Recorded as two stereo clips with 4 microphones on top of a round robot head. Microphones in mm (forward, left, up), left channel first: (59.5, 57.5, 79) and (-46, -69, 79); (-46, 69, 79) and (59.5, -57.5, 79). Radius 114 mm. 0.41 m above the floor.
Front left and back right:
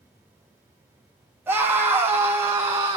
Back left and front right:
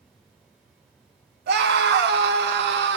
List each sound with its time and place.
1.5 s a scream: 50° right, 3.5 m; by 3.0 s 55° right, 4.5 m